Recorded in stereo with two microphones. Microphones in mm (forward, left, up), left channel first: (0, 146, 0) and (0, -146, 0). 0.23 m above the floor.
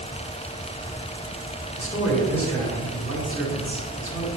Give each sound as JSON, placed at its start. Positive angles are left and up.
{"t": 1.8, "sound": "a man speaking", "side_deg": 50, "distance_m": 2.5}